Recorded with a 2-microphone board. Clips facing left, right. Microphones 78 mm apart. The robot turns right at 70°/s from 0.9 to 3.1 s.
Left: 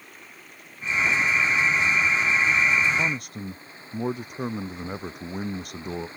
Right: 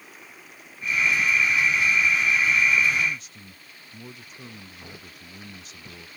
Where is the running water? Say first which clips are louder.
Even; straight ahead; by 6.2 s 150° left.